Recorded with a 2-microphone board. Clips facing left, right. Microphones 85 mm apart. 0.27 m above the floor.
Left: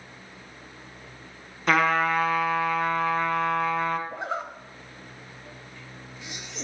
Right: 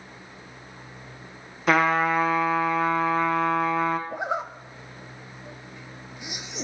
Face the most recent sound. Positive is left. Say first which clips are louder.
# right 3 dB
turn(degrees=-15)  # may be behind; listen again after turning